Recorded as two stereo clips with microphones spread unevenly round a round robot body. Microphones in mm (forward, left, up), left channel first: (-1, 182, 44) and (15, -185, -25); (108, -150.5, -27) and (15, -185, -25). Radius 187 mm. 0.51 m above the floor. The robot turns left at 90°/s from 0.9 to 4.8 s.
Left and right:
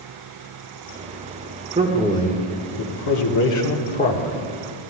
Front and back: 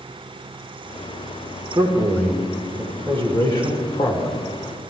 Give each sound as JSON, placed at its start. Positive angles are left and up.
{"t": 1.8, "sound": "a man speaking", "azimuth_deg": -145, "distance_m": 1.6}